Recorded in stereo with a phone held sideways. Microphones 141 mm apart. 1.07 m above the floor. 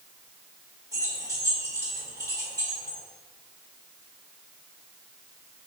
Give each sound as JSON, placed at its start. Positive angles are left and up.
{"t": 0.9, "sound": "keys jangling", "side_deg": -25, "distance_m": 1.7}